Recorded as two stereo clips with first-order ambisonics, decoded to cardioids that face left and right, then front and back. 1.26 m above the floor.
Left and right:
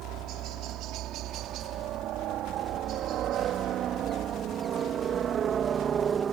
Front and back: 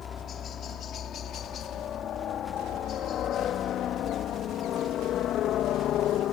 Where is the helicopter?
55° right; by 6.3 s 30° right.